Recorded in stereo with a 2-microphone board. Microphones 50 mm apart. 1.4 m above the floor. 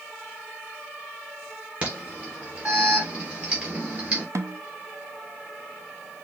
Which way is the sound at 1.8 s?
30° right (ahead or behind).